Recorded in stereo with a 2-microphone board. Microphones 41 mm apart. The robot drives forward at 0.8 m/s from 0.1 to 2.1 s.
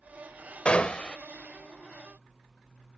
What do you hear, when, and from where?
0.7 s a gunshot: 35° left (ahead or behind); by 1.2 s 25° left (ahead or behind)